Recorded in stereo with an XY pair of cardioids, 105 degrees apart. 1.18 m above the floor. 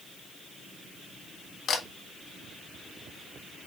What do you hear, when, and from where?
1.7 s a camera shutter: 60° left, 1.6 m